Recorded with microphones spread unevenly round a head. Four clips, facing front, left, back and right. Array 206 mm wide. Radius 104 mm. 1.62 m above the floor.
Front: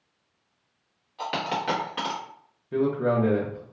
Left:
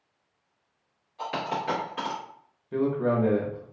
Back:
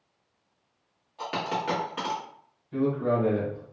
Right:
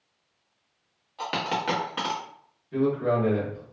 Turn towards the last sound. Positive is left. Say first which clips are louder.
# right 1 dB, front 2 dB
turn(degrees=30)